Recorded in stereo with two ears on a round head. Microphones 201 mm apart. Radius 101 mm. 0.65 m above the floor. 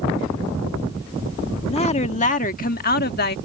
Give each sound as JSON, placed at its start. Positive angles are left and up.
{"t": 1.7, "sound": "a woman speaking", "side_deg": 30}